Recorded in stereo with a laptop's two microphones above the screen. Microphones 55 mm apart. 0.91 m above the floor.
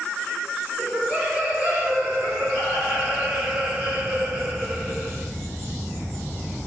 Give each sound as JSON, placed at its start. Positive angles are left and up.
{"t": 0.8, "sound": "laughter", "side_deg": -10, "distance_m": 1.0}